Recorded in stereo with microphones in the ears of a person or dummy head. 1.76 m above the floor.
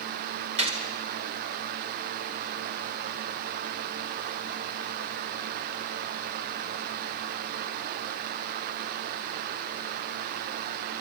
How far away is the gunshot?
About 1.6 m.